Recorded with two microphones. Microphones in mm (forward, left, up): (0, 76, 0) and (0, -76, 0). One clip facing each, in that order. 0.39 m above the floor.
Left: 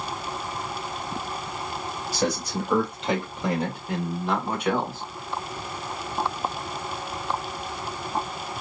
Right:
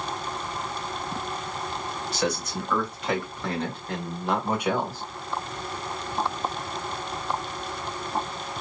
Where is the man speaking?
40° left (ahead or behind), 1.5 m; by 5.0 s 20° right (ahead or behind), 1.2 m.